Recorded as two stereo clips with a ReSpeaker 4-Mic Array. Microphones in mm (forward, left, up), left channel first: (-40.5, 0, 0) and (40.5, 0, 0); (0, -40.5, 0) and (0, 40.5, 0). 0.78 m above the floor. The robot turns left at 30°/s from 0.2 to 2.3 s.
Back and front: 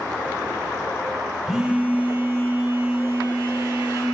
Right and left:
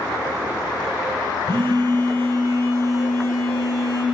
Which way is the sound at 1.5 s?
85° left.